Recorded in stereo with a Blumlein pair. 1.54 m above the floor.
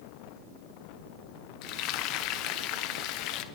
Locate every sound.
1.6 s frying: 40° left, 0.8 m